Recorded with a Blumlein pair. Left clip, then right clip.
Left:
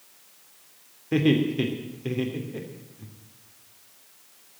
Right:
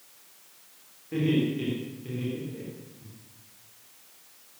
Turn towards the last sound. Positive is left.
turn(degrees=60)